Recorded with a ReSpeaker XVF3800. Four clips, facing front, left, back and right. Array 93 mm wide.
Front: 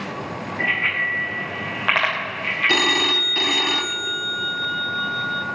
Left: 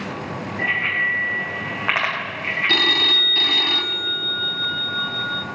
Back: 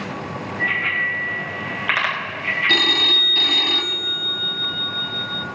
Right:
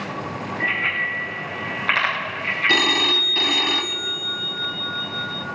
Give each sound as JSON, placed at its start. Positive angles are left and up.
{"t": 0.6, "sound": "a bicycle bell", "azimuth_deg": 45, "distance_m": 5.5}
{"t": 2.7, "sound": "a phone ringing", "azimuth_deg": -35, "distance_m": 0.6}